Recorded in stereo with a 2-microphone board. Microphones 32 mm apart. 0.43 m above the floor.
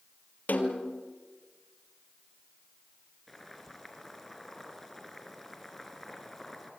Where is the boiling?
5° left (ahead or behind), 3.5 m.